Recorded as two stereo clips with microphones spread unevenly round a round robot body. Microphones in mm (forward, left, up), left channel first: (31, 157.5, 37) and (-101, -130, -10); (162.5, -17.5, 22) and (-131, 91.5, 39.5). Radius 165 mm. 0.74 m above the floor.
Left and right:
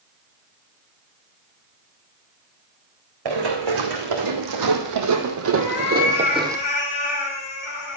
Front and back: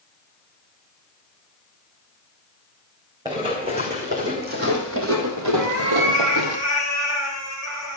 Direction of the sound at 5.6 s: 120° left.